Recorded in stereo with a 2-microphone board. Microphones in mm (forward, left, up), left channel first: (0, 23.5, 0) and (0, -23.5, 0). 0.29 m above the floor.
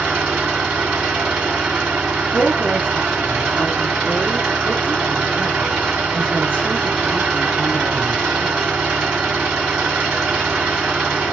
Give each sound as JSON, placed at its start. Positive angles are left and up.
{"t": 0.0, "sound": "an engine running", "side_deg": -20, "distance_m": 2.0}
{"t": 2.3, "sound": "a woman speaking", "side_deg": 25, "distance_m": 2.0}